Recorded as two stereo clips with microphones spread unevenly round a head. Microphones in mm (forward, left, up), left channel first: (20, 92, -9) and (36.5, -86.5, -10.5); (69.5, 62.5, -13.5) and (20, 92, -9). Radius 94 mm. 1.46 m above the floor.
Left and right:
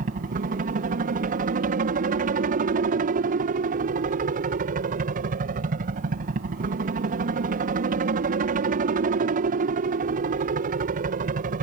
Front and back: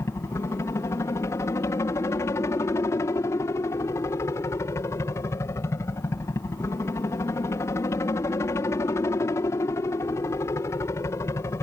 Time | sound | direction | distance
0.0 | a helicopter | 60° right | ?